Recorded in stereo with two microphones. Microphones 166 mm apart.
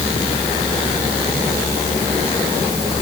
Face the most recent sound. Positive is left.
No sound to turn to.